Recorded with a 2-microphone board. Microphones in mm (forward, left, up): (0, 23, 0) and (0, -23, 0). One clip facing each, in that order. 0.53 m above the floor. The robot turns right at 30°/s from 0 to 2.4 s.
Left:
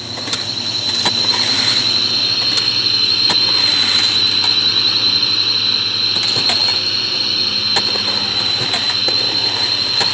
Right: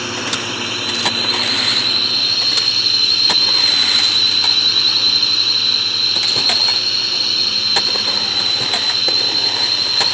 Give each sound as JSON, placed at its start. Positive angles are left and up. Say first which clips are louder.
{"t": 0.0, "sound": "a drone", "louder": "right 4 dB", "azimuth_deg": -65}